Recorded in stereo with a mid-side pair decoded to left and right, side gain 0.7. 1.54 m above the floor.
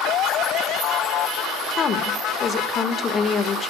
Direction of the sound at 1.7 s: 35° left.